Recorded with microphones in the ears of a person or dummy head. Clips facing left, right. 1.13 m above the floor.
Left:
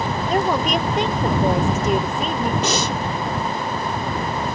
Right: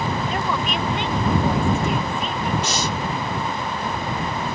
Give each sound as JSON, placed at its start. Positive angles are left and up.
{"t": 0.3, "sound": "a woman speaking", "side_deg": 35}
{"t": 2.6, "sound": "breathing", "side_deg": 65}